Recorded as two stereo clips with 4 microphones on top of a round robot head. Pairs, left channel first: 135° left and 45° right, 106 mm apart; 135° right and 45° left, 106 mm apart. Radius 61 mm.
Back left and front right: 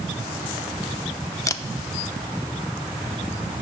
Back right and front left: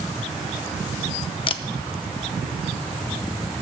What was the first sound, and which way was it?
A camera shutter, 165° right.